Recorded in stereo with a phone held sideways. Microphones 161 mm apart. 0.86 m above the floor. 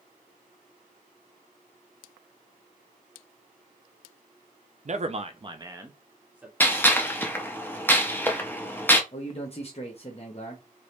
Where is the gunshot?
15° left (ahead or behind), 0.5 m.